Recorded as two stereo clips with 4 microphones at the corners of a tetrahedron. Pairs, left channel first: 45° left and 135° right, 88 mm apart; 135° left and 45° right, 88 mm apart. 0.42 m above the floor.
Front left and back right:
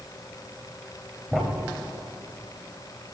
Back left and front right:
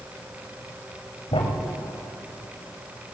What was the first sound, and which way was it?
A thud, 140° left.